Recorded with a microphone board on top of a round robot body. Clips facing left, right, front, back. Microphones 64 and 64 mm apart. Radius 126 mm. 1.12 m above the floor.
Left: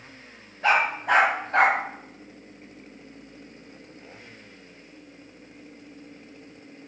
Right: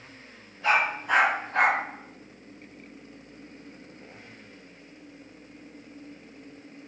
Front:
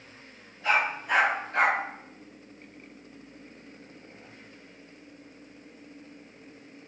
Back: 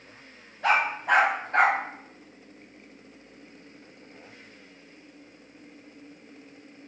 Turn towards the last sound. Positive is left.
turn(degrees=115)